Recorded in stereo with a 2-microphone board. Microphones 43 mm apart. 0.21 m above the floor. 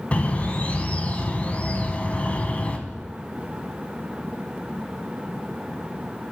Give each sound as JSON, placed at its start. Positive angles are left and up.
{"t": 0.1, "sound": "a bird", "side_deg": 35, "distance_m": 0.5}